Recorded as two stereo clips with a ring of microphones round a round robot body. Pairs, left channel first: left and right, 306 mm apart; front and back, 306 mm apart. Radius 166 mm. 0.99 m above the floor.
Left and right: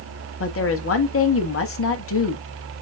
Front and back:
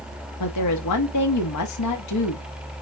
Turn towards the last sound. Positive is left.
turn(degrees=45)